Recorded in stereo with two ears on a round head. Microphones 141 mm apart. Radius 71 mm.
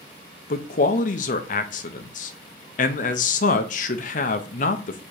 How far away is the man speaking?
About 0.6 m.